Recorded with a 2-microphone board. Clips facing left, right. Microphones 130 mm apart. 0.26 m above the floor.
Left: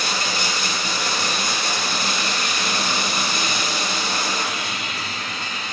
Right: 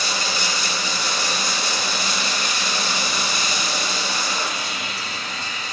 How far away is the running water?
About 0.9 m.